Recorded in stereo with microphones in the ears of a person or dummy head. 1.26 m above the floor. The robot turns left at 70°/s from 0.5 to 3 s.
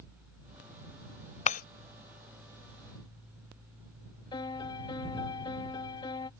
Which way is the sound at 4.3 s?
25° left (ahead or behind).